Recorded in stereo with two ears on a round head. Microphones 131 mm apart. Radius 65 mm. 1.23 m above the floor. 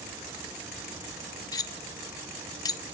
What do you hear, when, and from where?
1.5 s cutlery clinking: 25° left (ahead or behind), 0.9 m